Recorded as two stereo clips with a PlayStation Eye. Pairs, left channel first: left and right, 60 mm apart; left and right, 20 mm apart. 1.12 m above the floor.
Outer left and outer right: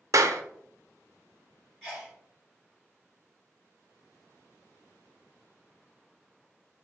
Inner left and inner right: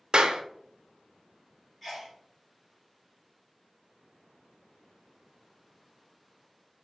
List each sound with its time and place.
0.1 s a clap: 70° right (ahead or behind), 0.6 m
1.8 s a sneeze: 15° left (ahead or behind), 2.5 m